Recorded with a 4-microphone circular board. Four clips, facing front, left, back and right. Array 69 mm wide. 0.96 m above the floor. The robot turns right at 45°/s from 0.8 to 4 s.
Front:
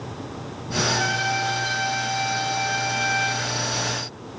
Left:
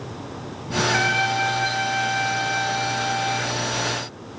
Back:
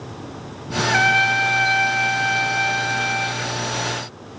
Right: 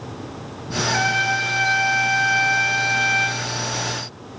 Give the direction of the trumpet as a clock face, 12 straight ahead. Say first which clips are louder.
Right 1 dB, back 7 dB; 6 o'clock.